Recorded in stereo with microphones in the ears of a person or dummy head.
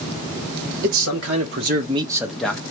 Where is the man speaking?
90° right, 1.1 m; by 2.6 s 10° left (ahead or behind), 0.9 m.